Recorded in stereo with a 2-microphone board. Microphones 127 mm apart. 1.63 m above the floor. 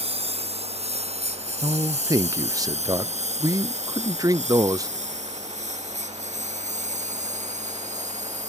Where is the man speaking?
30° right (ahead or behind).